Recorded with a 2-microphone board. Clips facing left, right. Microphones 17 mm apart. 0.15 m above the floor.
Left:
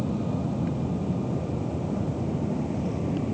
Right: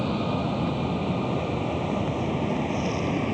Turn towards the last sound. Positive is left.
turn(degrees=-50)  # may be behind; listen again after turning